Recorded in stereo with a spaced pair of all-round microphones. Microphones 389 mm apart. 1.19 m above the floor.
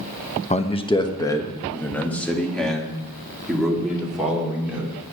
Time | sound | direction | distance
0.5 | a man speaking | 20° left (ahead or behind) | 1.0 m